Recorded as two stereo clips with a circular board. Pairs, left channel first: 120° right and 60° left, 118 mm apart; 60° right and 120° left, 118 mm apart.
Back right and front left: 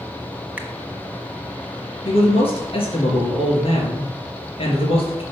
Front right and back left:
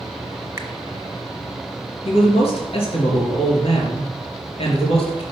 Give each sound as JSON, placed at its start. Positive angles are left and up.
{"t": 0.6, "sound": "a finger snap", "azimuth_deg": 115, "distance_m": 1.0}
{"t": 2.0, "sound": "a man speaking", "azimuth_deg": -90, "distance_m": 3.0}